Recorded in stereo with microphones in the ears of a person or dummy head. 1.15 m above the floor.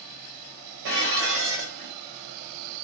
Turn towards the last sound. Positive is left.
turn(degrees=-60)  # may be behind; listen again after turning